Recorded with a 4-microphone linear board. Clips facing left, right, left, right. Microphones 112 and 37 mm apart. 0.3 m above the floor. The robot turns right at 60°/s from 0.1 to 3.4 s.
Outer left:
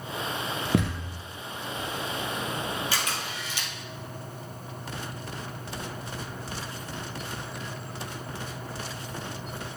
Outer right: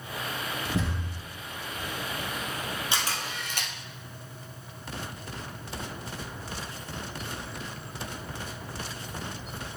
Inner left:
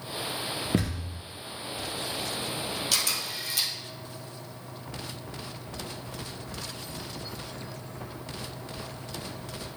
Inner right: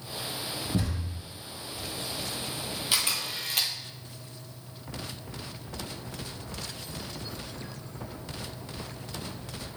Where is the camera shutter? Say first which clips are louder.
Even, inner right 3 dB; 20° right (ahead or behind), 1.7 m; by 3.7 s 50° right (ahead or behind), 1.7 m.